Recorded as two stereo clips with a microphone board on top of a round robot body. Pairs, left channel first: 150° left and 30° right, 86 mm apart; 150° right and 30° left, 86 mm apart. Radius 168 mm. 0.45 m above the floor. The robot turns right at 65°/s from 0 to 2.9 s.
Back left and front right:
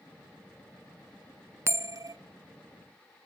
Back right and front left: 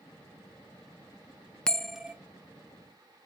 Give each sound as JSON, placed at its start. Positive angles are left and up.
{"t": 1.7, "sound": "a bell", "azimuth_deg": -75, "distance_m": 0.5}